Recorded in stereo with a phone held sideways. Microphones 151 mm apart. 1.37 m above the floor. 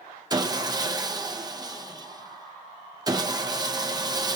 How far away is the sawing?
About 0.8 m.